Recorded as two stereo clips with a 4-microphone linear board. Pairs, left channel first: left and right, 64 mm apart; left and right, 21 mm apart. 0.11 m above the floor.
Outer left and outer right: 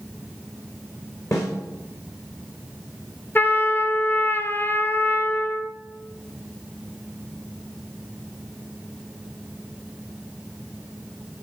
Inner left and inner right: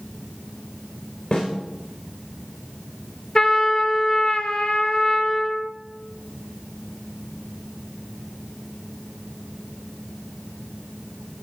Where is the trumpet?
30° left (ahead or behind), 1.4 m.